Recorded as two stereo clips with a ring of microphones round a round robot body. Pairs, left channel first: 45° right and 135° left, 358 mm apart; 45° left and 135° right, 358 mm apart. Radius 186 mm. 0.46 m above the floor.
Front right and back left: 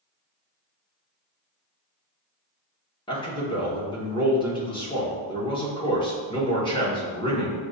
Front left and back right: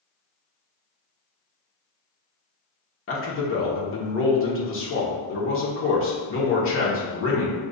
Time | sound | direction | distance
3.1 | a man speaking | 25° left | 1.3 m